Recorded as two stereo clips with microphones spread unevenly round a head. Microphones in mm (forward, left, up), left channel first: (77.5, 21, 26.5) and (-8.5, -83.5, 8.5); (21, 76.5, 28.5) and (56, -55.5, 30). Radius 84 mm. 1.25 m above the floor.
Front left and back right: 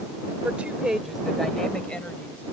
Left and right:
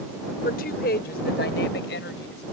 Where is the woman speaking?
150° left; by 2.4 s 130° left.